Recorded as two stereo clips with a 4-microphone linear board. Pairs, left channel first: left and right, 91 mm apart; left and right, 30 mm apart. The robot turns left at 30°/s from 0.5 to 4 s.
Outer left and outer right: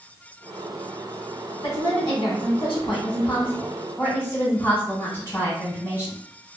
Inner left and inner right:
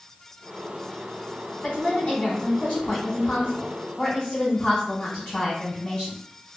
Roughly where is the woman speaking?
Left.